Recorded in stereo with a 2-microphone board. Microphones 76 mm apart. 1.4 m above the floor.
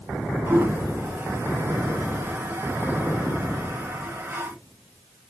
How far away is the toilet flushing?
About 0.9 m.